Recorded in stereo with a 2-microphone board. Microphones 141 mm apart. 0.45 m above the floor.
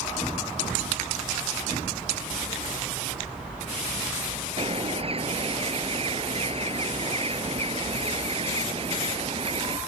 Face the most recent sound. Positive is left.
turn(degrees=-45)  # may be behind; listen again after turning